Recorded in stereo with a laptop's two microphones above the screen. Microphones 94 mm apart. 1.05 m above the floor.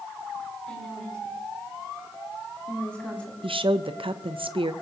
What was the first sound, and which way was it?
A woman speaking, 10° left (ahead or behind).